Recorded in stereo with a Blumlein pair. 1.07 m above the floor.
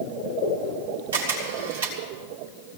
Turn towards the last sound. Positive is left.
turn(degrees=-65)